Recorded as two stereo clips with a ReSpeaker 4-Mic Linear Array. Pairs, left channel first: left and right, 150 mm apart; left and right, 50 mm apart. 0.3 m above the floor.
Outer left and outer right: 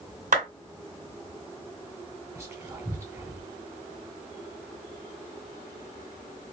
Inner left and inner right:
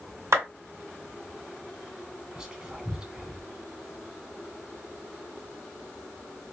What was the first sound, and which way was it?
A clap, 65° right (ahead or behind).